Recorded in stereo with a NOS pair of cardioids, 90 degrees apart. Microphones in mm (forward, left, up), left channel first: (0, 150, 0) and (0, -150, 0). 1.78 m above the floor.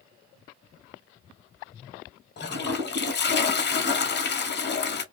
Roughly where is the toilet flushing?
Ahead left.